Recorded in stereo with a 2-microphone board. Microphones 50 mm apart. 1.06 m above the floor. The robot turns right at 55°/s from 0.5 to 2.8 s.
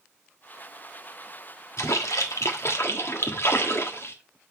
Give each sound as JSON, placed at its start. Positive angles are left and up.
{"t": 1.8, "sound": "a splash", "azimuth_deg": 65, "distance_m": 1.3}